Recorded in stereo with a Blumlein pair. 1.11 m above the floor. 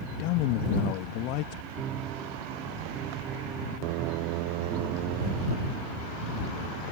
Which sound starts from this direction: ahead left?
A man speaking, at 0.2 s.